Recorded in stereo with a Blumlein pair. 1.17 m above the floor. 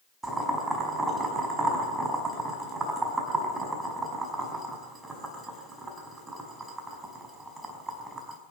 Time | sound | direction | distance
0.2 | boiling | 15° right | 5 m